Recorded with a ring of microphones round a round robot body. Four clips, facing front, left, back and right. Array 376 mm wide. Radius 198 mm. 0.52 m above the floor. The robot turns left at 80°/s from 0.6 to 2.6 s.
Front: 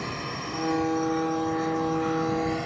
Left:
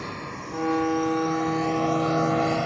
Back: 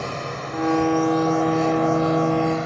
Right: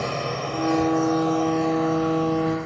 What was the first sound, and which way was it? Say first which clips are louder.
A drone: right 8 dB, back 4 dB; 115° right.